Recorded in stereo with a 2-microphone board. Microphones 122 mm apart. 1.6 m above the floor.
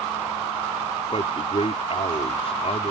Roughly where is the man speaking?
Left.